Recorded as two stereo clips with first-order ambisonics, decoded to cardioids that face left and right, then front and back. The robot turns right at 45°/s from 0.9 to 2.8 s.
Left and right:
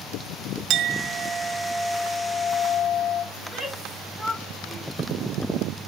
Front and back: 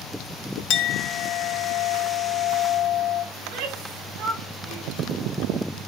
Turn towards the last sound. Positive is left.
turn(degrees=175)